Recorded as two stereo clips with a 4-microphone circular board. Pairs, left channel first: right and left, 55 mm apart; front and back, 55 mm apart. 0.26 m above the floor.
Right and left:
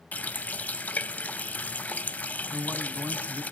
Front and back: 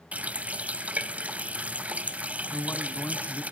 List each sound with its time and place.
0.1 s a running tap: 135° right, 1.0 m
2.5 s a man speaking: 45° left, 1.6 m